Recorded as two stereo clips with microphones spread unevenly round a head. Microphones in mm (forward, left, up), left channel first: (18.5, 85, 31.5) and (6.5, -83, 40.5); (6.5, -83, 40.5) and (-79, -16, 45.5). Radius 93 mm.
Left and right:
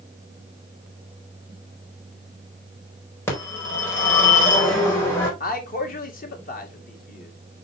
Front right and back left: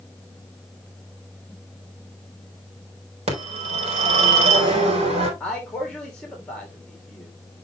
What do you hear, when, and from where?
3.3 s a phone ringing: 165° left, 4.5 m
5.4 s a man speaking: 45° left, 2.5 m